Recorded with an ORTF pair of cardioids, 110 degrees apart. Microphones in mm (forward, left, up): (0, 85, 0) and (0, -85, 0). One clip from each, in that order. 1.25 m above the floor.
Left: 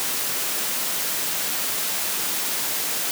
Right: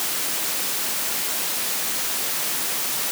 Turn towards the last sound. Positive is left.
No sound to turn to.